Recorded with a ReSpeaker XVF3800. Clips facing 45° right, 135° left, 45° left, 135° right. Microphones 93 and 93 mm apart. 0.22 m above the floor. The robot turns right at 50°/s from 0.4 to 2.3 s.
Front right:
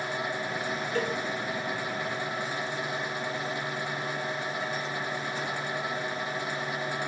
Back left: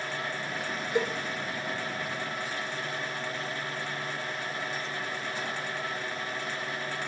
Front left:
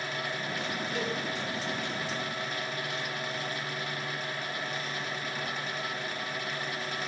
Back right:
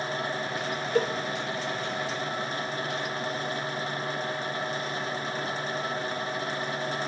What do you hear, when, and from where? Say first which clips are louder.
0.9 s a cowbell: back left 2 dB, back right 9 dB; 155° right, 0.9 m; by 1.1 s 150° right, 0.9 m